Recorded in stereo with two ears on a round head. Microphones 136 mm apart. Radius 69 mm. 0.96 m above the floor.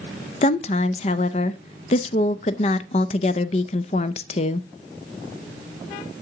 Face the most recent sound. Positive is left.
turn(degrees=40)  # may be behind; listen again after turning